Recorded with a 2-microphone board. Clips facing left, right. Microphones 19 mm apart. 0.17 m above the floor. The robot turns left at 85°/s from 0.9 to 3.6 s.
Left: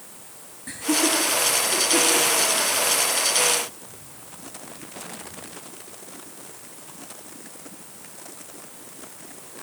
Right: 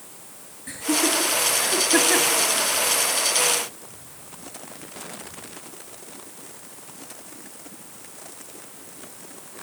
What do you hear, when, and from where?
0.7 s laughter: 5° left (ahead or behind), 2 m; by 2.4 s 45° right (ahead or behind), 2 m